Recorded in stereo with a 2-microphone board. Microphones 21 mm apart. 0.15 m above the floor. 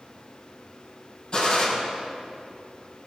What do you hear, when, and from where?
1.3 s a gunshot: 45° left (ahead or behind), 6 m